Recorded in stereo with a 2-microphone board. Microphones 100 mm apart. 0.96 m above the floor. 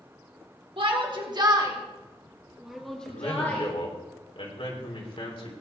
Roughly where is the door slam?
No door slam in this recording.